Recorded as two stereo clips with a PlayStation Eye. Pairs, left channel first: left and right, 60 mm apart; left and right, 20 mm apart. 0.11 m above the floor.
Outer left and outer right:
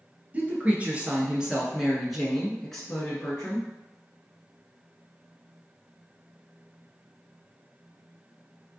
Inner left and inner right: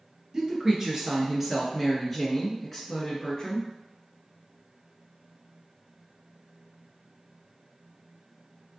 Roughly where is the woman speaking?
Right.